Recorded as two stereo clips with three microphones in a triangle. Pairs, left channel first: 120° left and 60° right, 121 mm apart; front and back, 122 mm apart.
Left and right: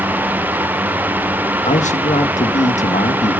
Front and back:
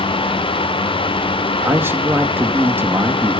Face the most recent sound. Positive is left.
turn(degrees=110)